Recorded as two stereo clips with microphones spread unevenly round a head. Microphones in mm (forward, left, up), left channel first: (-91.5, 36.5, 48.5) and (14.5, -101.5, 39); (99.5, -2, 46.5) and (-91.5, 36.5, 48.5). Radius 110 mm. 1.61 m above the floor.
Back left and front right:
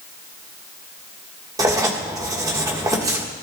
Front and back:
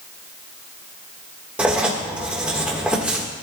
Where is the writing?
110° right, 1.3 m.